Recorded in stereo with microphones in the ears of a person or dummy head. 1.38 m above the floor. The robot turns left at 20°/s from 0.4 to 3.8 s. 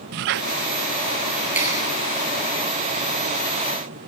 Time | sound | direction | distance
0.1 | a squeak | 55° right (ahead or behind) | 0.7 m
1.6 | a clap | 10° right (ahead or behind) | 8.5 m